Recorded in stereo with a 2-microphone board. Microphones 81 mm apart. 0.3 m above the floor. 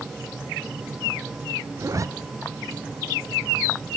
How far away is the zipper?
About 1.1 m.